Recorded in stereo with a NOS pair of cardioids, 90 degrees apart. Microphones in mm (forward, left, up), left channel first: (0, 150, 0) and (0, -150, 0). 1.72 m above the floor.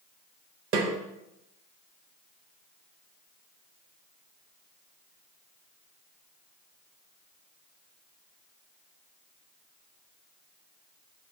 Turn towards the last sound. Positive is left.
turn(degrees=-45)